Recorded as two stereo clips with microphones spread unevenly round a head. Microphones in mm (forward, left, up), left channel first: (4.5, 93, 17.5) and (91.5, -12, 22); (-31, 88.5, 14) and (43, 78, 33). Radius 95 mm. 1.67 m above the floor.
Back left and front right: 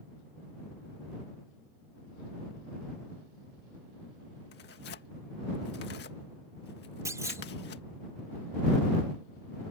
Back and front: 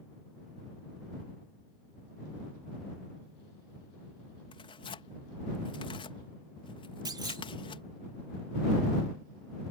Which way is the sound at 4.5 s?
165° left.